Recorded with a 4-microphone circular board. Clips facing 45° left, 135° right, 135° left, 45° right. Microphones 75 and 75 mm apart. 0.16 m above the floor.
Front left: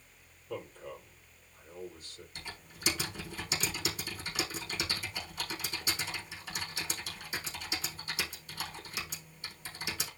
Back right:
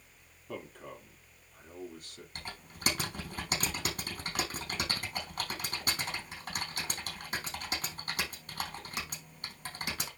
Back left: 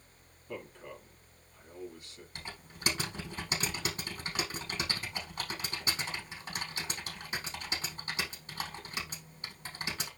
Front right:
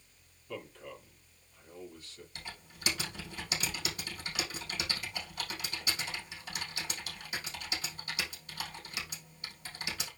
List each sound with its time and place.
0.5 s a man speaking: 155° right, 4.5 m
2.4 s typing on a keyboard: 170° right, 4.5 m